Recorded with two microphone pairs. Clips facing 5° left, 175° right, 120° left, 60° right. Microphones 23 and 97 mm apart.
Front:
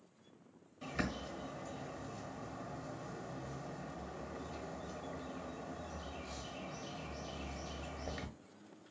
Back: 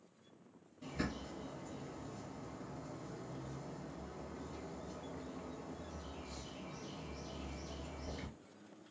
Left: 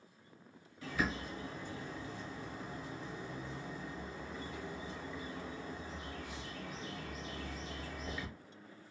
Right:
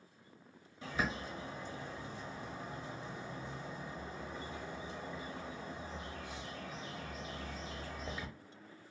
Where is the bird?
5° left, 0.8 m.